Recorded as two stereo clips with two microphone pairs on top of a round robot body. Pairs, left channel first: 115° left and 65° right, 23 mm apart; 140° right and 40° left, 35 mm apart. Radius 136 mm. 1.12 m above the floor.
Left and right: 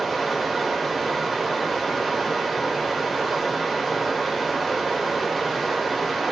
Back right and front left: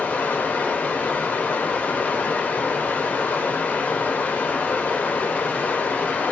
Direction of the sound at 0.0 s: 145° right.